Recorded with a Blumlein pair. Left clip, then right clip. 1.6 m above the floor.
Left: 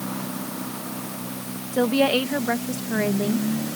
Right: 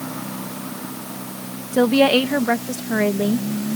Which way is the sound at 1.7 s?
15° right.